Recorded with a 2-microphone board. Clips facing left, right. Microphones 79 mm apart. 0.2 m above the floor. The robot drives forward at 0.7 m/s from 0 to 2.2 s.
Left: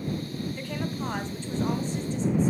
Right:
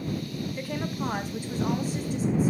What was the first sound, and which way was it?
A woman speaking, 5° right (ahead or behind).